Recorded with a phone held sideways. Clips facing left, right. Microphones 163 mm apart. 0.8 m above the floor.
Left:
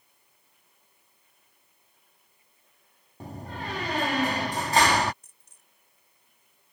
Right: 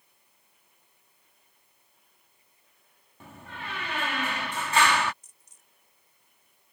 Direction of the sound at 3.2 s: 40° left (ahead or behind).